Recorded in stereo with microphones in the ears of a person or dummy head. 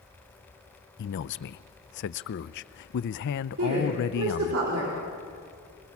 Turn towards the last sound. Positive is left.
turn(degrees=-85)